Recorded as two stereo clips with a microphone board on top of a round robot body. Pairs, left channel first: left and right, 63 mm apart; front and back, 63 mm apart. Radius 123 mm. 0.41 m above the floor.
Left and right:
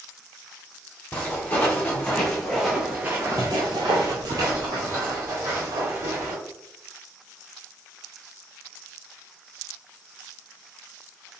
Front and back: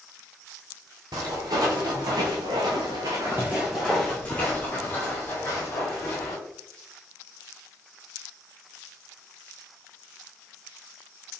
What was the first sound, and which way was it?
Footsteps, 155° left.